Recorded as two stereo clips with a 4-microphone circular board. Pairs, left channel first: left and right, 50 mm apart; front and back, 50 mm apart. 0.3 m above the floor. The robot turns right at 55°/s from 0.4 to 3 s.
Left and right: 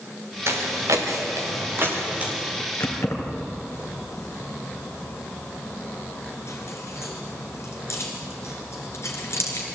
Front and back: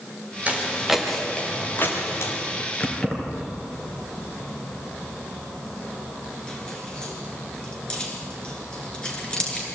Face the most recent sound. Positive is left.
turn(degrees=70)